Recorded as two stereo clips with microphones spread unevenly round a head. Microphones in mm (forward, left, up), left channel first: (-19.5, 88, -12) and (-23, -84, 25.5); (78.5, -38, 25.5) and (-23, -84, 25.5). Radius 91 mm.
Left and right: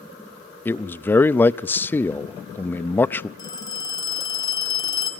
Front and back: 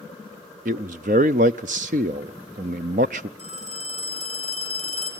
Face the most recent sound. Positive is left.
turn(degrees=160)